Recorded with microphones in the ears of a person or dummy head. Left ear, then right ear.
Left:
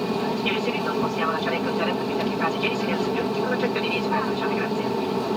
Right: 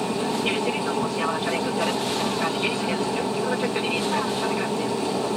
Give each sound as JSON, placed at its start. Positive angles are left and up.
{"t": 0.0, "sound": "an aircraft", "side_deg": 5}